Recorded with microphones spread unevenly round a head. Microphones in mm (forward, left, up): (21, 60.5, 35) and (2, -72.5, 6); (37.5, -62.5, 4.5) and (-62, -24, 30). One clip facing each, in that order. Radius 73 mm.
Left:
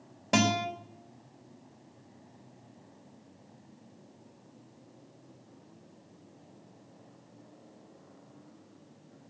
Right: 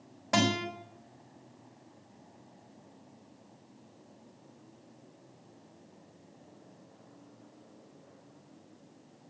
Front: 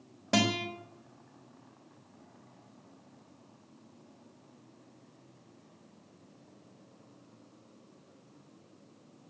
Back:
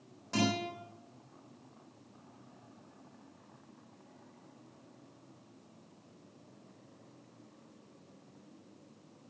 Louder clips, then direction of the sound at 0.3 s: Left 2 dB, front 3 dB; 20° left.